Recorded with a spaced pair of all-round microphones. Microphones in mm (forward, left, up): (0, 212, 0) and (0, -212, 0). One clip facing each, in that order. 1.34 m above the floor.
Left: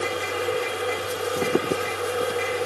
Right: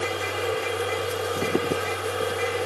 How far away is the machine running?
About 1.0 m.